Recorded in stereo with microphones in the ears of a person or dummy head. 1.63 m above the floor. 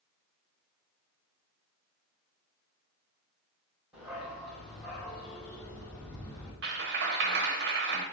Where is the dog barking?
5° right (ahead or behind), 3 m; by 6.5 s 20° left (ahead or behind), 4 m.